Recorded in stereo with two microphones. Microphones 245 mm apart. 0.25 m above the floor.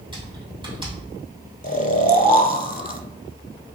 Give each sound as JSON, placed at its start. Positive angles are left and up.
{"t": 0.1, "sound": "typing on a keyboard", "side_deg": -20, "distance_m": 1.9}
{"t": 1.6, "sound": "snoring", "side_deg": 35, "distance_m": 0.5}